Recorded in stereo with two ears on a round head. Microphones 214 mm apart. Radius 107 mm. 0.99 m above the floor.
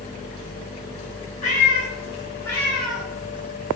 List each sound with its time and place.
1.4 s a cat meowing: 30° left (ahead or behind), 2.0 m; by 3.1 s 5° right (ahead or behind), 1.5 m